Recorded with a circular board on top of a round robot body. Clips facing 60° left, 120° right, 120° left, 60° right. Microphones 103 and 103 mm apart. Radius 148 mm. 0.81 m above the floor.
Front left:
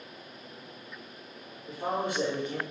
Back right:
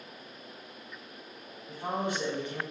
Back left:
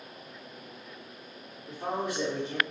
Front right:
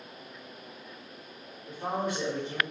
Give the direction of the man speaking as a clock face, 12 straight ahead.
11 o'clock.